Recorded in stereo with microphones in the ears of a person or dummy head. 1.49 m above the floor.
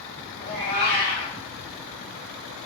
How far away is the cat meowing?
About 1.3 m.